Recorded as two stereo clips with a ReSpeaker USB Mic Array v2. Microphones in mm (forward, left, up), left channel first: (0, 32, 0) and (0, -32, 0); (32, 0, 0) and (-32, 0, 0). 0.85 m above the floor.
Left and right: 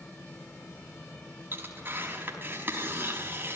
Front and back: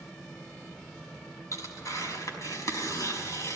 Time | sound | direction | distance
1.5 | tearing paper | 35° right | 4.5 m